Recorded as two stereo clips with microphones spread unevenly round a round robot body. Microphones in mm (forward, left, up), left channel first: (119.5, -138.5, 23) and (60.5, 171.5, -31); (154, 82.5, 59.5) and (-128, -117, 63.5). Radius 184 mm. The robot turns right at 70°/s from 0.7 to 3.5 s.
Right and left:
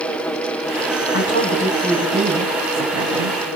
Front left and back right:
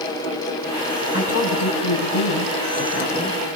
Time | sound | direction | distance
1.1 | a woman speaking | 30° right | 5 m